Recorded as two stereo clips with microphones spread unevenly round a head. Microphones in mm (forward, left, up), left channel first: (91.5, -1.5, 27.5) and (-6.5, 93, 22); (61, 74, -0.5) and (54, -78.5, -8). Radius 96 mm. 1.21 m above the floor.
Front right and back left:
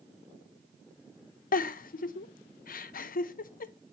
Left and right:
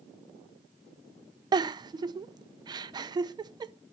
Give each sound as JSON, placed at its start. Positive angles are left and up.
{"t": 1.5, "sound": "a giggle", "azimuth_deg": -30, "distance_m": 0.5}